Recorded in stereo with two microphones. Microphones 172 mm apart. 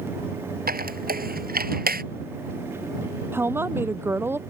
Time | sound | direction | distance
0.7 | a squeak | 60° right (ahead or behind) | ?
3.3 | a woman speaking | 15° right (ahead or behind) | ?